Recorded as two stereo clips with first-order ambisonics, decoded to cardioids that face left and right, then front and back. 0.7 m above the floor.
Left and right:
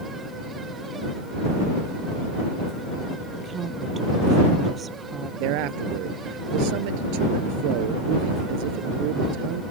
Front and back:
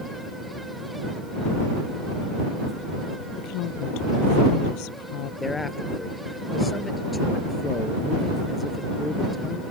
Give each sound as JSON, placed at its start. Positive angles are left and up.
{"t": 3.4, "sound": "a woman speaking", "azimuth_deg": -20}
{"t": 5.4, "sound": "a man speaking", "azimuth_deg": -80}